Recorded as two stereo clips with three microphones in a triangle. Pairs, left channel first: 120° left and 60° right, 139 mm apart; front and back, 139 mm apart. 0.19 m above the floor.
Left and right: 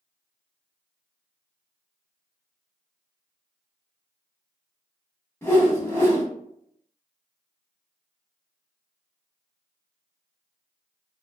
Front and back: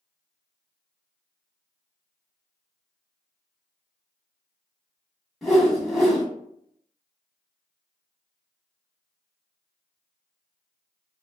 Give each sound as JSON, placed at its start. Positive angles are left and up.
{"t": 5.4, "sound": "a whoosh", "azimuth_deg": 85, "distance_m": 0.8}